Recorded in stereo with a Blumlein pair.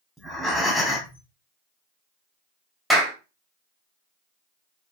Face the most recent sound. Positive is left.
turn(degrees=-15)